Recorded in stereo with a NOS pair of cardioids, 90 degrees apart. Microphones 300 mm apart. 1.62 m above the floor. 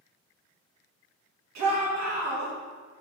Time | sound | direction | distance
1.6 | a shout | 65° right | 2.5 m